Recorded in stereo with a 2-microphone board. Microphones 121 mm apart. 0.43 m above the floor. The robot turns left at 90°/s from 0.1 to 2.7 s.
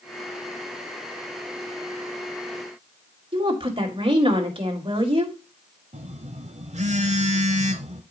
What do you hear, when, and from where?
3.3 s a woman speaking: 45° right (ahead or behind), 2.0 m
5.9 s a phone buzzing: 65° right (ahead or behind), 1.0 m